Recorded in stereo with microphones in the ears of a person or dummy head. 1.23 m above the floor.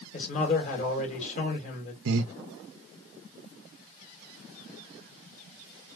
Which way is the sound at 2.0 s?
75° right (ahead or behind).